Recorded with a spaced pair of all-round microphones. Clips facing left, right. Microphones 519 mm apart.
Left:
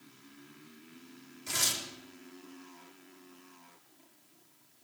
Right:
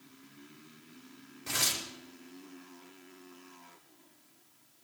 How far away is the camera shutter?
No camera shutter in this recording.